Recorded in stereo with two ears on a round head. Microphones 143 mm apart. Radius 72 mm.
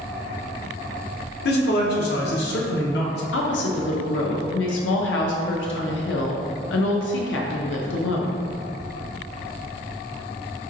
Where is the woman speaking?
80° left, 0.6 m.